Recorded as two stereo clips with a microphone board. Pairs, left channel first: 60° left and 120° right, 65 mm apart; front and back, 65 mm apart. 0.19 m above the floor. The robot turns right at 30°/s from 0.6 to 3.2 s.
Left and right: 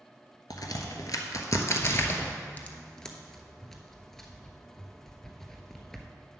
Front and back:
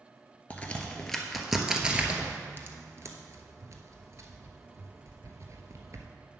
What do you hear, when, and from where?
0.5 s a crack: 65° left, 0.9 m; by 6.1 s 145° left, 0.9 m